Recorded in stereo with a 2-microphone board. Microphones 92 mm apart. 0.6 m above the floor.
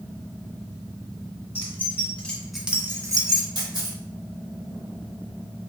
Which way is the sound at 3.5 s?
60° right (ahead or behind).